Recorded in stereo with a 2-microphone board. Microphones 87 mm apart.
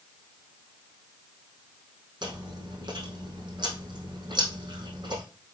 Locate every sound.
2.2 s chewing: 65° right (ahead or behind), 3.5 m